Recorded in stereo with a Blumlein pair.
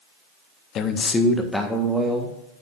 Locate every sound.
0.8 s a man speaking: 30° left, 1.1 m; by 2.4 s 10° right, 2.5 m